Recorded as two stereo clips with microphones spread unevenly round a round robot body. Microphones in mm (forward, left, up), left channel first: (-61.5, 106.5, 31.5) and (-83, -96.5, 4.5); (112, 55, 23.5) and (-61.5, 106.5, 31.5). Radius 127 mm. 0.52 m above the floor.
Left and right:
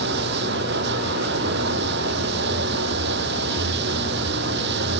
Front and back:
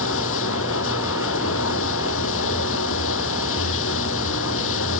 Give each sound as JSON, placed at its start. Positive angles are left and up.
{"t": 0.0, "sound": "running water", "azimuth_deg": -45}